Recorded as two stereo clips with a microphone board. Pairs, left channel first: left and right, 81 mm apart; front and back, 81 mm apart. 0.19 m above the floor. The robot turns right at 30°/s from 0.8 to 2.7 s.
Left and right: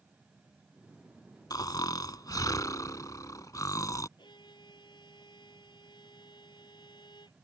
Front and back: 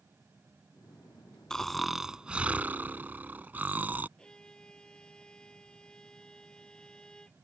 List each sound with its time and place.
1.5 s snoring: 80° left; by 4.1 s 115° left
4.2 s a violin: 80° left